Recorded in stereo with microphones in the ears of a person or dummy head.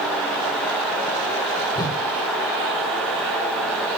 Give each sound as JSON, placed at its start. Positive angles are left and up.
{"t": 1.8, "sound": "a whoosh", "side_deg": 15, "distance_m": 1.3}